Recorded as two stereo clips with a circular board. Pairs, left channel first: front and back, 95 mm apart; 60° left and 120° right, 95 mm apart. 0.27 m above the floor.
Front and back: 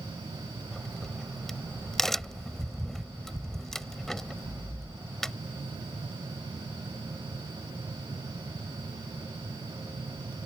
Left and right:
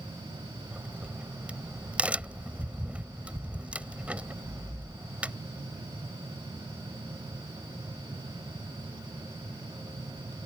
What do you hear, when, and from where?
0.7 s a crack: 80° right